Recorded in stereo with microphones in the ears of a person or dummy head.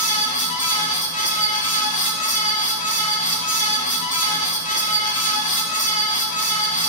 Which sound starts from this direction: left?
A fan, at 0.0 s.